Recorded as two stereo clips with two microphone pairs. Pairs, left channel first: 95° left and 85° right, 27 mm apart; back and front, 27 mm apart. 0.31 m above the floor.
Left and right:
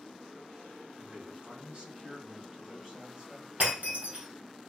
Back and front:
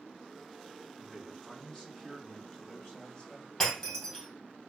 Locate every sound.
1.0 s a man speaking: 115° right, 2.0 m; by 3.5 s 145° right, 3 m
3.6 s breaking glass: 115° right, 2.5 m